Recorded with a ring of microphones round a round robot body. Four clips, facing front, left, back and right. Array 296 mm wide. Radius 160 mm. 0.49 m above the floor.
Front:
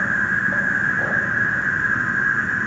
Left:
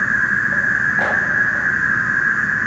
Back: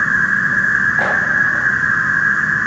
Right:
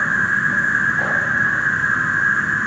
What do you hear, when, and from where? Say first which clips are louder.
0.0 s an insect: even, back 5 dB; 155° right, 0.9 m